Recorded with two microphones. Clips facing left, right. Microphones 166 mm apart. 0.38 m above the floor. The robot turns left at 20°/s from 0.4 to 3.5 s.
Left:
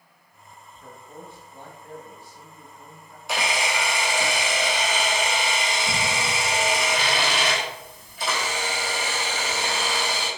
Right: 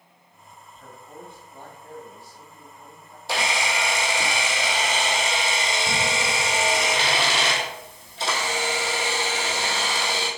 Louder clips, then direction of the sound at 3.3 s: Even; 30° right (ahead or behind).